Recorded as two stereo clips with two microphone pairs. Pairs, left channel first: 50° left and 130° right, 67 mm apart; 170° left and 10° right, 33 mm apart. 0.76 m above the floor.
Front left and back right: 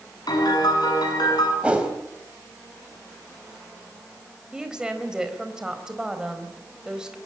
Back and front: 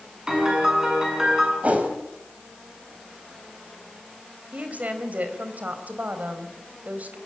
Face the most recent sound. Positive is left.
turn(degrees=-50)